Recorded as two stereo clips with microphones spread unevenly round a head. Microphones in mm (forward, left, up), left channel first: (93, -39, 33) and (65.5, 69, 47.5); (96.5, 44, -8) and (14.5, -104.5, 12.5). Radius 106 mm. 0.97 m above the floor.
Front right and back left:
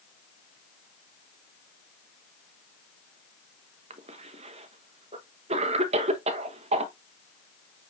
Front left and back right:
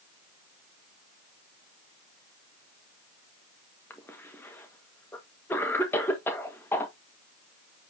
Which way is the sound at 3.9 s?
135° left.